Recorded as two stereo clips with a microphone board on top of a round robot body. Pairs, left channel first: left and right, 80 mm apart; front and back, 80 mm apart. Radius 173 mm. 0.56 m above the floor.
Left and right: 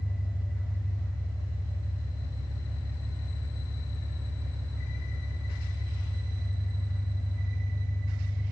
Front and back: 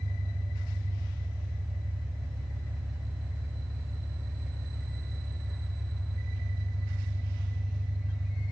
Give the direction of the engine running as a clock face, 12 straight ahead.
3 o'clock.